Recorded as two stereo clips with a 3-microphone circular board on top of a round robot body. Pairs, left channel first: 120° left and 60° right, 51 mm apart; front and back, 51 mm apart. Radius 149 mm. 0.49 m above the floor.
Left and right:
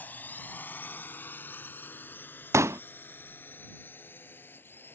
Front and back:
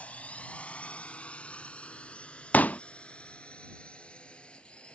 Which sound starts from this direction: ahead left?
A drone, at 0.0 s.